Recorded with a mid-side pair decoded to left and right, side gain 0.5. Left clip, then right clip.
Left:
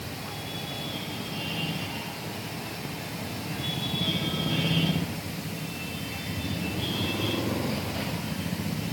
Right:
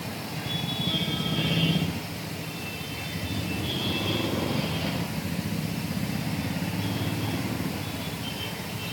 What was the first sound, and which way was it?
Only background noise.